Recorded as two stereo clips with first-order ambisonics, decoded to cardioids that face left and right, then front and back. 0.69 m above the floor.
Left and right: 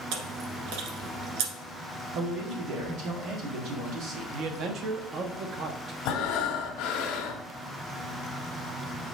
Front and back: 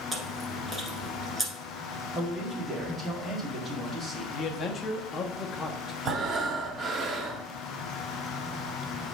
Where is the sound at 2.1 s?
110° right, 1.7 m.